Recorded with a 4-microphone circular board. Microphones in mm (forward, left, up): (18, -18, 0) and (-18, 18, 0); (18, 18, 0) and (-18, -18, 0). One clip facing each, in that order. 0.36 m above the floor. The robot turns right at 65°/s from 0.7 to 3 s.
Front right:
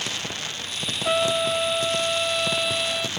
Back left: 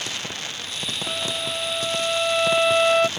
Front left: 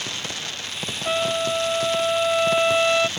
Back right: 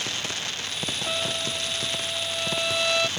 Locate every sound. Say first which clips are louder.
1.1 s a trumpet: front right 9 dB, front left 10 dB; 15° right; by 3.1 s 110° left